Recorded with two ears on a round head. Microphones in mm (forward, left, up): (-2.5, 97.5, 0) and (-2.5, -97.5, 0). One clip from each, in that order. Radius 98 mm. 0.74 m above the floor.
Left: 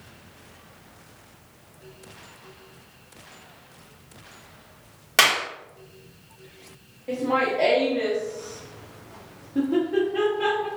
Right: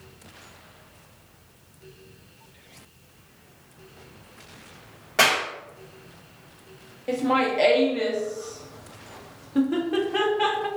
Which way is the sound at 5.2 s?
70° left (ahead or behind).